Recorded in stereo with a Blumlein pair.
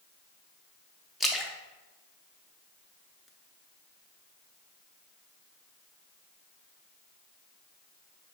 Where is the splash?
5° left, 0.6 m.